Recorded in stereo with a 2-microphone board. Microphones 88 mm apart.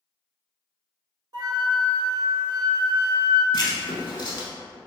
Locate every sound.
1.3 s a flute: 60° right (ahead or behind), 0.8 m
3.5 s writing: 60° left (ahead or behind), 0.5 m